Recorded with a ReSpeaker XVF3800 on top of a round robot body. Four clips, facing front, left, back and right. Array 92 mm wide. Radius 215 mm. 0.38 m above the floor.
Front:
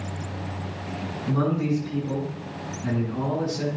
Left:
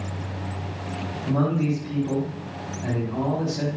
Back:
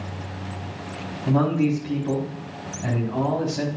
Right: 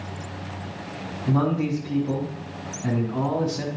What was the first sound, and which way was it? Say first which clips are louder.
A man speaking: right 1 dB, back 4 dB; 165° left.